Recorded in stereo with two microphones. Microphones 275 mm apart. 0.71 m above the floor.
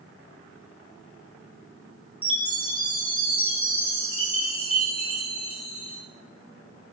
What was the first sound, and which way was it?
A chime, 20° left (ahead or behind).